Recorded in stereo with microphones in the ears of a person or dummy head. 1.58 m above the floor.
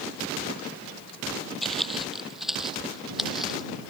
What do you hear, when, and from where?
1.6 s footsteps: centre (ahead or behind)